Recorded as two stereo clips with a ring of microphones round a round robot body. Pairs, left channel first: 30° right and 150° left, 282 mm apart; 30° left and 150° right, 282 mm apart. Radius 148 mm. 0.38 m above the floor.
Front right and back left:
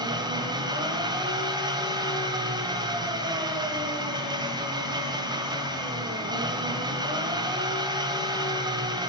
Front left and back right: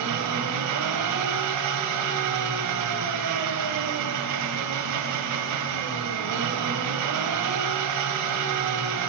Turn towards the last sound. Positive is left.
turn(degrees=-135)